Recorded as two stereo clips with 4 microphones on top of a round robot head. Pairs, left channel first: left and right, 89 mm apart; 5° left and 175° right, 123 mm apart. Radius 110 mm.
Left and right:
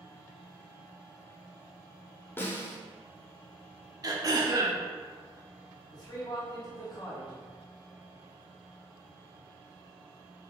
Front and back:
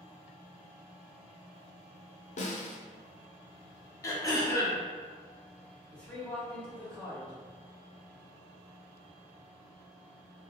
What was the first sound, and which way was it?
A snare drum, 25° left.